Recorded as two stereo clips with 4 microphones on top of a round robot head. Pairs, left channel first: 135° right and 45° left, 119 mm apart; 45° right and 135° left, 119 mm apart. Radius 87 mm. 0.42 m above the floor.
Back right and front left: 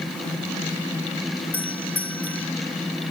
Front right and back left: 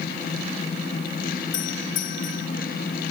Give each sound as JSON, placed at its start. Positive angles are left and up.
{"t": 1.5, "sound": "a doorbell", "azimuth_deg": -60}